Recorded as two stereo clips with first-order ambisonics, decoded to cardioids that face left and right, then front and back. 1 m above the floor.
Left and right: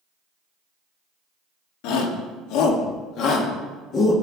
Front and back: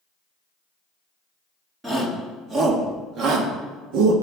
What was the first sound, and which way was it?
A shout, 100° left.